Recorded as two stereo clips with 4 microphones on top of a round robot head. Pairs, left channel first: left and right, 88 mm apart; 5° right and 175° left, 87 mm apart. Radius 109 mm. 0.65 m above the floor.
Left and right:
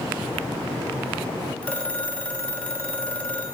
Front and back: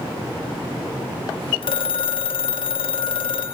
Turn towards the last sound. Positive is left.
turn(degrees=15)